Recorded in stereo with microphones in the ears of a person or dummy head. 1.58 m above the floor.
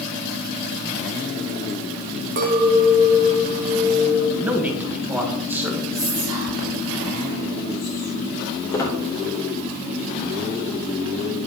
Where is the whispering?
85° left, 3.5 m.